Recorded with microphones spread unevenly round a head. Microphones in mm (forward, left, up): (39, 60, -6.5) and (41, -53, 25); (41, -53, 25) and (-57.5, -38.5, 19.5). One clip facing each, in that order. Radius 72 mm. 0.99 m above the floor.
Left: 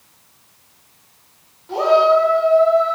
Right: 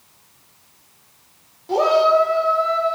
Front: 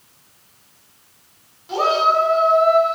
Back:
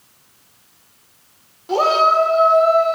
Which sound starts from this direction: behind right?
A shout, at 1.7 s.